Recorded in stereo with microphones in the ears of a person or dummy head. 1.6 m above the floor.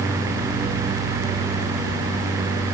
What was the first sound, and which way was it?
Only background noise.